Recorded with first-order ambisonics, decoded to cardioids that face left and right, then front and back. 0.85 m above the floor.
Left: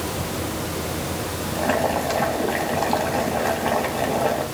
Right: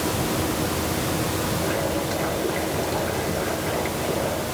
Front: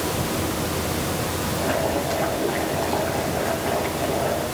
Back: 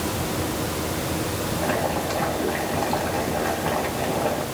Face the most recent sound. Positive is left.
turn(degrees=95)